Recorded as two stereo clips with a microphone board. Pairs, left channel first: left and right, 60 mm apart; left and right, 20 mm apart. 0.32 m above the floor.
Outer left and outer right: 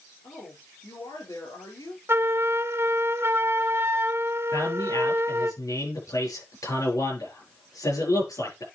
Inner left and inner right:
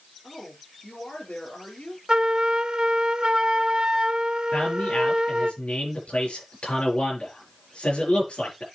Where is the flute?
45° right (ahead or behind), 0.6 m.